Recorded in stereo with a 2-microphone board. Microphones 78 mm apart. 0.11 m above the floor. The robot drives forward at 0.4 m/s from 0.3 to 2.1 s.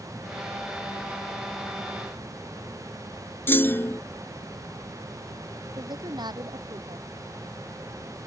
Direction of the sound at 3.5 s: 30° left (ahead or behind).